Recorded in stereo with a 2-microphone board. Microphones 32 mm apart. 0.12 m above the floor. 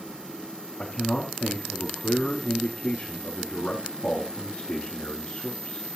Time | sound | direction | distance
0.8 | a man speaking | 55° left (ahead or behind) | 4.5 m